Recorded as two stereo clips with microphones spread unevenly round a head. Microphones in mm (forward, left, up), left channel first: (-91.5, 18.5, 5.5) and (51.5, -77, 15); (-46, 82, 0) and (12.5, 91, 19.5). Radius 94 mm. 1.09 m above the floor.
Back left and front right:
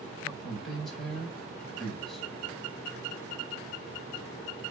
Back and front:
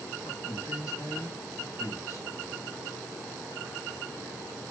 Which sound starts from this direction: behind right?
A man speaking, at 0.2 s.